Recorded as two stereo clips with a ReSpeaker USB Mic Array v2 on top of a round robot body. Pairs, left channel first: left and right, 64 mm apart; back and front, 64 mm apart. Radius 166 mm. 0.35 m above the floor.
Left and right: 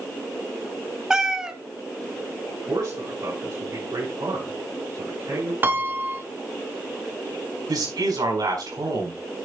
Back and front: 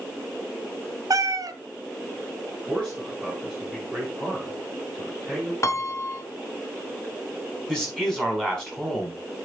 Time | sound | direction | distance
1.1 | a cat meowing | 10° right | 1.0 m
2.7 | a man speaking | 100° right | 5 m
5.6 | a piano | 145° right | 1.2 m
7.7 | a man speaking | 100° right | 5.5 m